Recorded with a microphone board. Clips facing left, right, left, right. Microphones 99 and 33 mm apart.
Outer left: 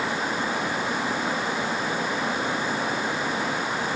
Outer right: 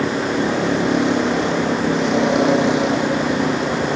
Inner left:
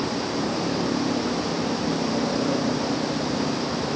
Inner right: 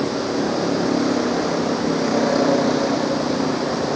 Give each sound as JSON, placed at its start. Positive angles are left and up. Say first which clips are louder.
{"t": 0.0, "sound": "a vehicle", "louder": "outer right 8 dB, inner right 5 dB", "side_deg": -90}